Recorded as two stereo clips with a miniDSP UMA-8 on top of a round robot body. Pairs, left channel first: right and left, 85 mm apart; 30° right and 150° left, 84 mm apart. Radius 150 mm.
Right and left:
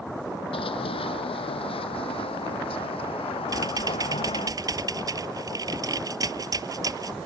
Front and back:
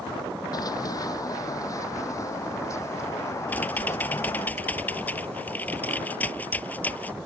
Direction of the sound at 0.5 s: 75° right.